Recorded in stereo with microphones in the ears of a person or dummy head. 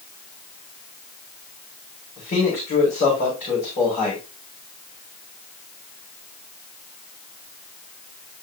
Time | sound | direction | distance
2.2 | a man speaking | 40° left (ahead or behind) | 5.5 m